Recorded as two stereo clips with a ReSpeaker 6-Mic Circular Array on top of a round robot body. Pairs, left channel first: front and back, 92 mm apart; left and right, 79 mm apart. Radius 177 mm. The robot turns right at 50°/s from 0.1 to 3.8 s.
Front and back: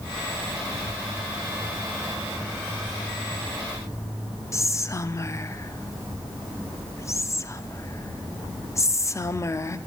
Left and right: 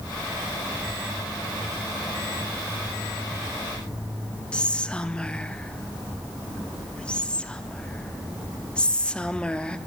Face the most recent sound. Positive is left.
turn(degrees=25)